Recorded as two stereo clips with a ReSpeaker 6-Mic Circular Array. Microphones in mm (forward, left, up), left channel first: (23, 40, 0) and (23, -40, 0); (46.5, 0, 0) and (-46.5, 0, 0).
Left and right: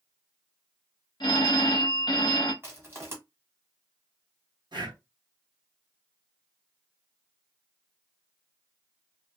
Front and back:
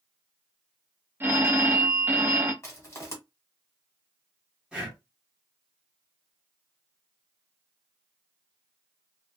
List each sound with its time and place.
1.2 s a phone ringing: 110° left, 0.9 m
2.6 s crushing: 45° right, 1.5 m
4.7 s breathing: 100° right, 1.4 m